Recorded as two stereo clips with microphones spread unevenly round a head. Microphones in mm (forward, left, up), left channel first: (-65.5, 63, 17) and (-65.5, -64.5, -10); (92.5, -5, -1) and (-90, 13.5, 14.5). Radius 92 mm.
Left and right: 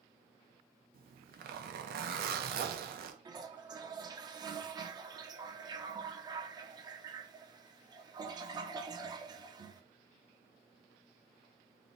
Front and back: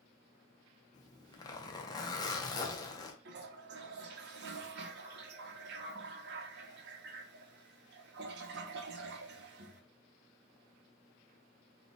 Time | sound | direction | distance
0.9 | a zipper | 75° right | 0.5 m
3.2 | a toilet flushing | 150° right | 0.6 m